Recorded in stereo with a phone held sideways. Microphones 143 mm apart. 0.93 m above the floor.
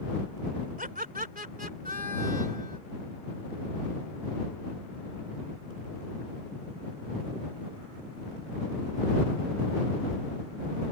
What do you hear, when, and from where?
0.8 s laughter: 80° right